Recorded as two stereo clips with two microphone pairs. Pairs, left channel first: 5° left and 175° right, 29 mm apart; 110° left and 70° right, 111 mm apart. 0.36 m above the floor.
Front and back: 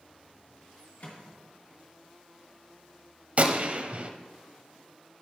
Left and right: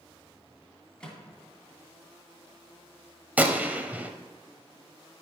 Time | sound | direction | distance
1.0 | a microwave | 25° left | 2.5 m
3.4 | a gunshot | 150° right | 0.8 m